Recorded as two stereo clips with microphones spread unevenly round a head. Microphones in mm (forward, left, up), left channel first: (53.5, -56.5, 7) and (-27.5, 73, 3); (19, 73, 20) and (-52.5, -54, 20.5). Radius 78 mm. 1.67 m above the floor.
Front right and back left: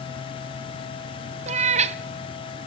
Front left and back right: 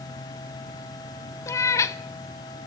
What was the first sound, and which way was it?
A cat meowing, 120° left.